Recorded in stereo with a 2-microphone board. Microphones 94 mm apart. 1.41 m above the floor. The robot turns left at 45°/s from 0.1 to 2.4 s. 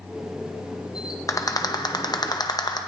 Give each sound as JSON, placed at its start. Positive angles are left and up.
{"t": 1.3, "sound": "a rattle", "side_deg": 35, "distance_m": 0.7}